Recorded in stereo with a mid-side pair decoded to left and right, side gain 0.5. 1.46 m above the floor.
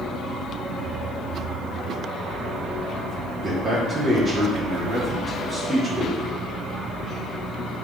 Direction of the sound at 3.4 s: 35° right.